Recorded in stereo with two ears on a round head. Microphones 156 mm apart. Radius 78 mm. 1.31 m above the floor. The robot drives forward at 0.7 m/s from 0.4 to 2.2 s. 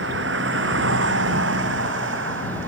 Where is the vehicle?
75° right (ahead or behind); by 2.7 s 80° right.